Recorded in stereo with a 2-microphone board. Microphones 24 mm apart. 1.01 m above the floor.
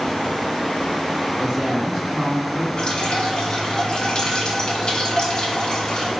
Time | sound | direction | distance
1.4 | a woman speaking | 35° right (ahead or behind) | 1.4 m
2.8 | dripping | 35° left (ahead or behind) | 0.9 m